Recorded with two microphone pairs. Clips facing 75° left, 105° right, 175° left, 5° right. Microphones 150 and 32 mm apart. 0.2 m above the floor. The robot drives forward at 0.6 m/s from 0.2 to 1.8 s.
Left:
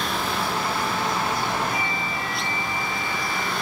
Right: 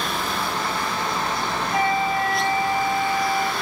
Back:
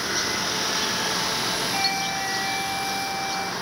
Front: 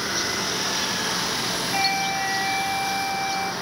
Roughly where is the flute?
Right.